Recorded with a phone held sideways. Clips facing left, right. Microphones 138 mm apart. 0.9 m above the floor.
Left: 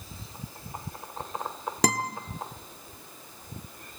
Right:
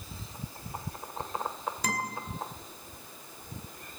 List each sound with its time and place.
1.8 s a guitar: 80° left, 1.3 m